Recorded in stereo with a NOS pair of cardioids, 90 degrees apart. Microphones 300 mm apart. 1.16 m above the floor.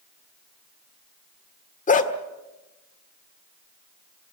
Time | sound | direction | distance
1.9 | a dog barking | 25° left | 1.6 m